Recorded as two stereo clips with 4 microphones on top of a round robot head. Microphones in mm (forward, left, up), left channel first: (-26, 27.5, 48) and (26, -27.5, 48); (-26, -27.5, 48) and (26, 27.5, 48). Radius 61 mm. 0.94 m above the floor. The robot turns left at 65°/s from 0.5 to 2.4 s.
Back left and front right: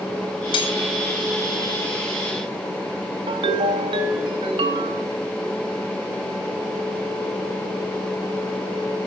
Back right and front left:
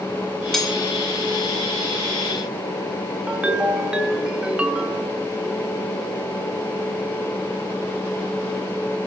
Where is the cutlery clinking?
145° left, 3 m; by 0.8 s 130° left, 3 m.